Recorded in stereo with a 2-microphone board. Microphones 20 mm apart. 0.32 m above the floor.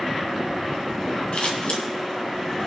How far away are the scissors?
About 2 m.